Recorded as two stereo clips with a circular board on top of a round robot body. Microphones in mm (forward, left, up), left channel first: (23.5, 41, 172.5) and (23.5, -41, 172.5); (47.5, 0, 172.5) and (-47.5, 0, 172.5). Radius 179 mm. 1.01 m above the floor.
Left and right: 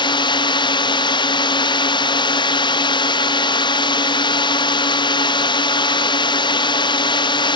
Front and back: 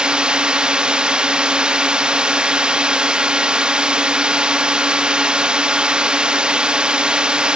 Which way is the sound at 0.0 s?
100° left.